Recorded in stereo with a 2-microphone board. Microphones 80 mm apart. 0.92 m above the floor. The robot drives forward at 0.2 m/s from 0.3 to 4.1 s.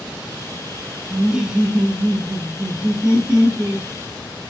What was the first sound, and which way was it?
Laughter, 10° right (ahead or behind).